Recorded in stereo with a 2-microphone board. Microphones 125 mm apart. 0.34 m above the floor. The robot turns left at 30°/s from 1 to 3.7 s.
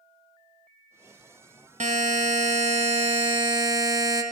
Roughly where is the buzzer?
Right.